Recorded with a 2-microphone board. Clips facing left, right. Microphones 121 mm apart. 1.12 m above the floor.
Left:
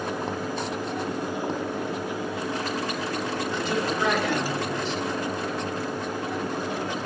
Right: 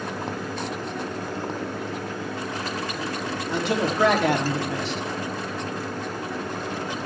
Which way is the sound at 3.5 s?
80° right.